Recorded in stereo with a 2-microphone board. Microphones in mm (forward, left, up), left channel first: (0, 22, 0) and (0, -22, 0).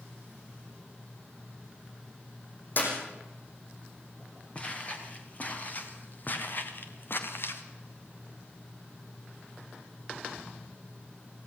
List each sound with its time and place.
2.8 s a clap: 45° left (ahead or behind), 6 m
4.5 s footsteps: 30° left (ahead or behind), 4.5 m; by 7.6 s 60° left (ahead or behind), 3 m